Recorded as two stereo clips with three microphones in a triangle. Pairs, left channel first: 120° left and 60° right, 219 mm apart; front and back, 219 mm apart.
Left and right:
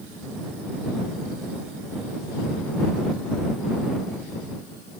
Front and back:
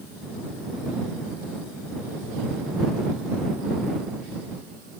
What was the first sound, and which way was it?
Only background noise.